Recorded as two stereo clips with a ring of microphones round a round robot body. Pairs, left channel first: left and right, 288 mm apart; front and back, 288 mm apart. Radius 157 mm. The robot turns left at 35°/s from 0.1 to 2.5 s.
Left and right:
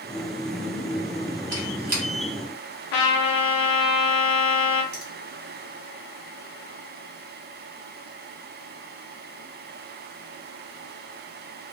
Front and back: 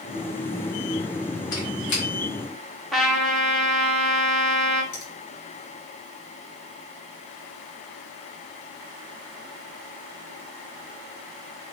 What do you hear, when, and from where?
1.5 s a squeak: 40° right, 1.0 m; by 2.0 s 60° right, 1.0 m
2.9 s a trumpet: 90° left, 0.5 m
4.9 s a finger snap: 25° right, 1.5 m